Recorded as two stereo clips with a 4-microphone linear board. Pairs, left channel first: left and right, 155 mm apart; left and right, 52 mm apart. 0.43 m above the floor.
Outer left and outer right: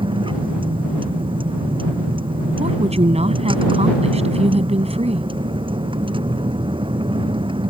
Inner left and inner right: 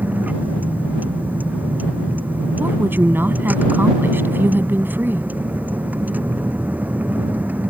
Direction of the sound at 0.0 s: 35° right (ahead or behind).